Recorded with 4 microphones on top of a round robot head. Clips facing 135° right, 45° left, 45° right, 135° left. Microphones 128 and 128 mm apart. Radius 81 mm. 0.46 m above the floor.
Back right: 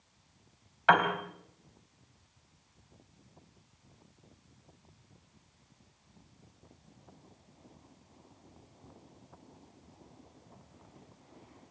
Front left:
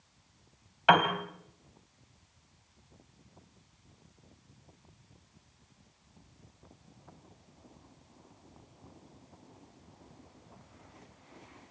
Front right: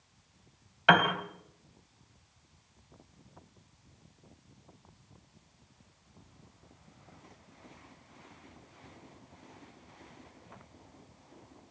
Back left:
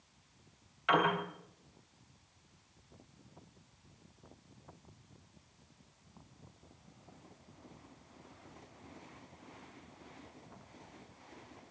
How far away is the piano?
About 3.5 m.